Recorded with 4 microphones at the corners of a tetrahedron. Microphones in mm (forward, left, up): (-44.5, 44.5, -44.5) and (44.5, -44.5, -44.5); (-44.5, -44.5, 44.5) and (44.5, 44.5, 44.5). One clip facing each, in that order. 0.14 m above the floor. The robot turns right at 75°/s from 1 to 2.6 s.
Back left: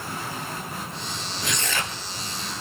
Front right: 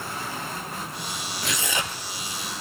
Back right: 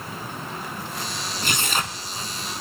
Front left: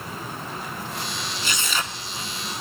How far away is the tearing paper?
About 1.2 m.